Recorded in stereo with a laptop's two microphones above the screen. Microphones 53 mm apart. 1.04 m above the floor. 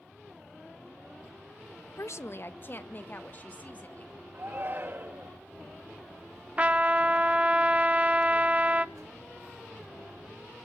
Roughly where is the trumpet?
Right.